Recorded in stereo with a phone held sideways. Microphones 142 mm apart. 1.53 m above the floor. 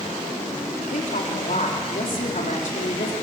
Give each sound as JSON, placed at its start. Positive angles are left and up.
{"t": 0.9, "sound": "a woman speaking", "side_deg": 70, "distance_m": 4.0}